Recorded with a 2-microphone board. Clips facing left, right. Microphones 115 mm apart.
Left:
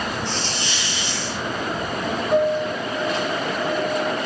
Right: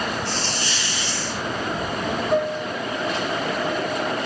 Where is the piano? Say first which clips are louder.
Left 5 dB; centre (ahead or behind), 3 m.